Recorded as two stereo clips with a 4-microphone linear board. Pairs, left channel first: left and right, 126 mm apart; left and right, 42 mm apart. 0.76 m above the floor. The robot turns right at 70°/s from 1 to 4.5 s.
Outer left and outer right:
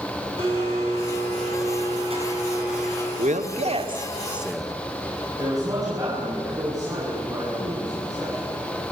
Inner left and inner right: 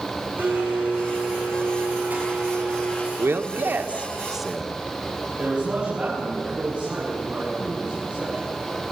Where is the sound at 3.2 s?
90° right, 1.4 m; by 4.7 s straight ahead, 1.4 m.